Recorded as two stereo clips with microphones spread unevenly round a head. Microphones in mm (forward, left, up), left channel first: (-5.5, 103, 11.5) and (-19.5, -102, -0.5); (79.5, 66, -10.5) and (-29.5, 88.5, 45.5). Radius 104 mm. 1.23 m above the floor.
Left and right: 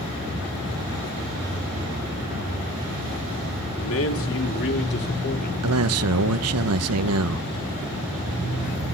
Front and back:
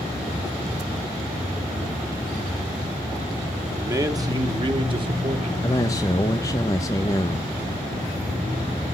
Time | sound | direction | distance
3.8 | a man speaking | 105° left | 2.5 m
5.6 | a man speaking | 75° right | 1.0 m